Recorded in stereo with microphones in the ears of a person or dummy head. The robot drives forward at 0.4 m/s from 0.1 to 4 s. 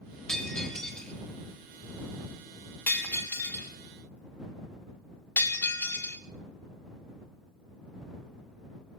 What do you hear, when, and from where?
0.3 s breaking glass: 10° left (ahead or behind), 3 m; by 6.2 s 15° left (ahead or behind), 1.4 m